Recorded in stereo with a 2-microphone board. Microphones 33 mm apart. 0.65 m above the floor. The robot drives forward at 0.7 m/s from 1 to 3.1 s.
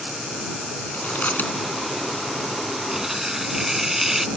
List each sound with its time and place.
0.9 s chewing: 70° left (ahead or behind); by 2.5 s 60° left (ahead or behind)
2.9 s tearing paper: 10° right (ahead or behind)